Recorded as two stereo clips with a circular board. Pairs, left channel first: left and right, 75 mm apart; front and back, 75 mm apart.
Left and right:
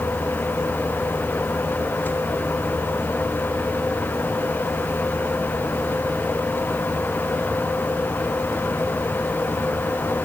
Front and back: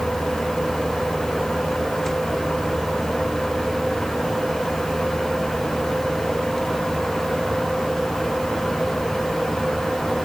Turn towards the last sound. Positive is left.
No sound to turn to.